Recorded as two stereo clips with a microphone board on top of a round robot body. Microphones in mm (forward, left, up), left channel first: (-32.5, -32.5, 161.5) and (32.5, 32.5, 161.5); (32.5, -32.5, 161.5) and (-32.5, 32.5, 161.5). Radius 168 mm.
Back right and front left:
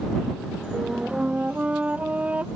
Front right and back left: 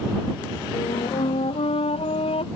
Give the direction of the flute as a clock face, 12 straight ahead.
1 o'clock.